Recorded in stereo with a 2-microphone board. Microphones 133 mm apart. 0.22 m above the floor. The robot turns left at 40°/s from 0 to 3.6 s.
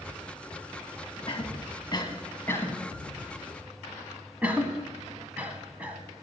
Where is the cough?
45° left (ahead or behind), 1.6 m; by 6.0 s 10° right (ahead or behind), 1.6 m.